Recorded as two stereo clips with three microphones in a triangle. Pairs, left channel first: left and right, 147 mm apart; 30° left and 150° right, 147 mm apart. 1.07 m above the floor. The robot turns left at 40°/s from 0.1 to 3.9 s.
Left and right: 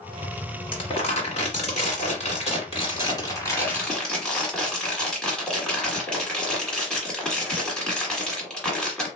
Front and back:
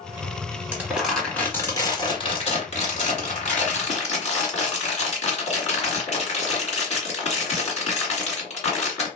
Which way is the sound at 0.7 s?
135° left.